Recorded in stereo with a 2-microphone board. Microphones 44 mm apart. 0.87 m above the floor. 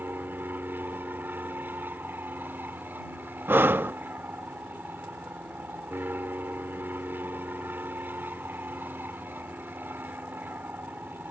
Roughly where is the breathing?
Right.